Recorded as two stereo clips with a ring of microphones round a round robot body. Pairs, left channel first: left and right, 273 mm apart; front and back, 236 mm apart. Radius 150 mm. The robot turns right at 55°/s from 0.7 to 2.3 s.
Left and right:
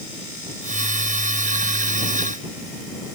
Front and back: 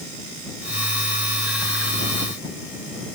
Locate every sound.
Only background noise.